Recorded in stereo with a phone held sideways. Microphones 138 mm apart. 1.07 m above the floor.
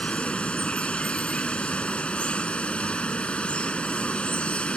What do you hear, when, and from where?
0.0 s running water: 10° left (ahead or behind)